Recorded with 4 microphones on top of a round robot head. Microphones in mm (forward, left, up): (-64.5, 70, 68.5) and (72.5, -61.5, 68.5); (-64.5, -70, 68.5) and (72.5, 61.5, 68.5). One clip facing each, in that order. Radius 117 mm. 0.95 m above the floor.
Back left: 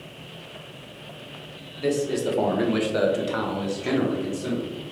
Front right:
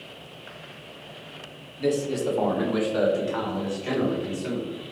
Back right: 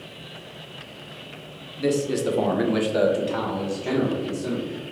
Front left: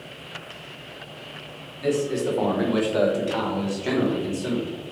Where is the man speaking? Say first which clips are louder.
Back left 1 dB, back right 1 dB; 135° right, 0.9 m; by 4.7 s 105° left, 1.3 m.